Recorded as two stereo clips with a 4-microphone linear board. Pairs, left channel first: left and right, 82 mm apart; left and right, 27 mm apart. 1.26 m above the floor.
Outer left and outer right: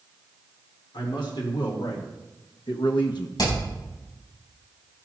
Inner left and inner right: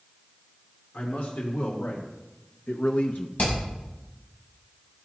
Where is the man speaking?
80° left, 3 m; by 3.3 s 55° left (ahead or behind), 0.7 m.